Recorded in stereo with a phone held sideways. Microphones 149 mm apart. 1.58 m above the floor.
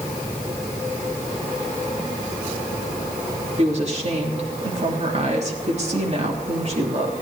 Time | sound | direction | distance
3.6 | a woman speaking | 50° right (ahead or behind) | 3 m